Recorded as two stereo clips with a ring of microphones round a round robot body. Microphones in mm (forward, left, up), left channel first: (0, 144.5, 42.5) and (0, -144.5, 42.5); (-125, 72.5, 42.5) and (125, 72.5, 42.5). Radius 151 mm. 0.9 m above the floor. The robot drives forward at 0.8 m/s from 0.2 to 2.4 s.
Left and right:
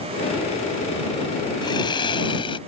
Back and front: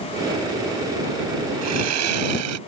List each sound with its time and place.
1.6 s sawing: 15° left